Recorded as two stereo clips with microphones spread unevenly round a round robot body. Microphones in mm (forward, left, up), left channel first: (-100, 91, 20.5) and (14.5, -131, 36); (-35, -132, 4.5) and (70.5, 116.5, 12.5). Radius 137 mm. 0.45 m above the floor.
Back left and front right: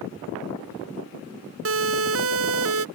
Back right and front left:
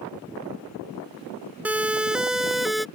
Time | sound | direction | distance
1.6 | a siren | 20° right | ?